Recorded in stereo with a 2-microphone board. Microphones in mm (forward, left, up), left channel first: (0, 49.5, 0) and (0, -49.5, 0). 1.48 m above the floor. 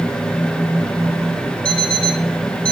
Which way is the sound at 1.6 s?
10° left (ahead or behind).